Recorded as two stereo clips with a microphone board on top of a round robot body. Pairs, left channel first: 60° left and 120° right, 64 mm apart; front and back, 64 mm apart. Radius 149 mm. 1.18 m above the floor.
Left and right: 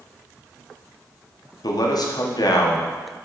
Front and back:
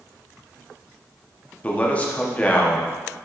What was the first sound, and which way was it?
A man speaking, 70° left.